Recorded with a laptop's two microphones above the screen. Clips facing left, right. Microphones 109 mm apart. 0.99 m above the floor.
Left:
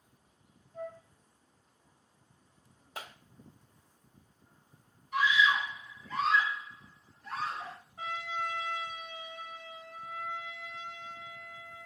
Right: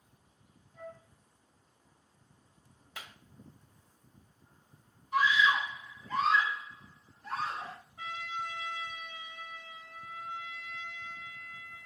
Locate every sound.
0.7 s a flute: 45° left (ahead or behind), 2 m
3.0 s a clap: 45° left (ahead or behind), 0.8 m
5.1 s a scream: 40° right (ahead or behind), 2.0 m
8.0 s a trumpet: 30° left (ahead or behind), 4 m